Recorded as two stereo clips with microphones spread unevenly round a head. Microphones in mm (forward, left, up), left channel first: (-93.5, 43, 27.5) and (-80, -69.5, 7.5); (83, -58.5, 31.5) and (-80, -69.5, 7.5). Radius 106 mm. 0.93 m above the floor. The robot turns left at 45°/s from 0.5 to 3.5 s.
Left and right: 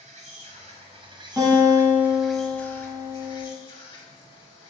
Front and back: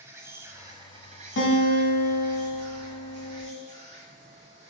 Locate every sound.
0.0 s an insect: 95° right, 1.2 m; by 4.7 s 130° left, 1.2 m
1.4 s a guitar: straight ahead, 1.4 m; by 3.5 s 95° right, 1.4 m